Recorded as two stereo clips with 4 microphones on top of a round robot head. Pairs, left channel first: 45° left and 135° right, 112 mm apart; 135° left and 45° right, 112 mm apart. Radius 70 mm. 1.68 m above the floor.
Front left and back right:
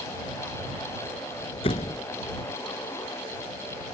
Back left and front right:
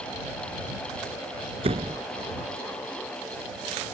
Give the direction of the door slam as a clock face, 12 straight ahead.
12 o'clock.